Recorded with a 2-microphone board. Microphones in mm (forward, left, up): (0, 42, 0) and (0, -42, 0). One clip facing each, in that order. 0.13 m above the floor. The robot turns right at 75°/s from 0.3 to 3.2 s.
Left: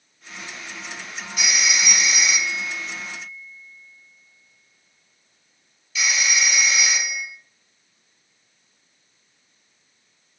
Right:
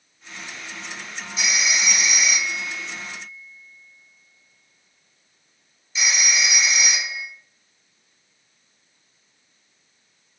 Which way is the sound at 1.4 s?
55° left (ahead or behind).